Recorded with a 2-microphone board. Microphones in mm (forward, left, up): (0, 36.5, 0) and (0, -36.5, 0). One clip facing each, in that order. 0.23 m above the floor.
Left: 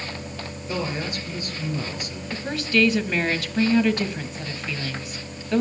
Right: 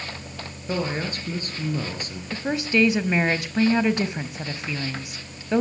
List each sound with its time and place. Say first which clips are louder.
0.7 s a man speaking: right 2 dB; 40° right (ahead or behind), 4 m
2.3 s a woman speaking: right 1 dB; 20° right (ahead or behind), 1.3 m